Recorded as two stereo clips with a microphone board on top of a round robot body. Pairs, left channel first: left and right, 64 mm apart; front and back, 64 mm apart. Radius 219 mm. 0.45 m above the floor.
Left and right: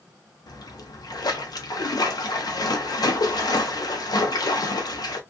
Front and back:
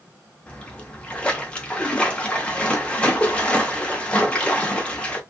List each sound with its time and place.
0.5 s a splash: 75° left, 0.7 m